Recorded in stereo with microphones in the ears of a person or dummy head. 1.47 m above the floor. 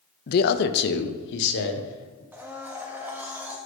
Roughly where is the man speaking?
Left.